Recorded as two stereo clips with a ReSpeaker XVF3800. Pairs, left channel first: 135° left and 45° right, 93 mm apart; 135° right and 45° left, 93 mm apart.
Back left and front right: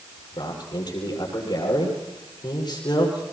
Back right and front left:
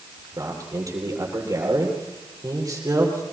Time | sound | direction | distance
0.4 | a man speaking | 95° left | 8 m